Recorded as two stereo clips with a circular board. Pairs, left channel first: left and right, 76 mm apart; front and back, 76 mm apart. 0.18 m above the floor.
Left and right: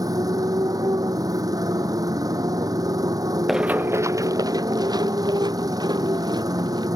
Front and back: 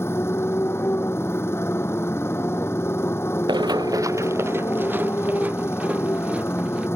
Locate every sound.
0.0 s a motorcycle: 55° right
3.5 s running footsteps: 175° right; by 6.9 s 105° right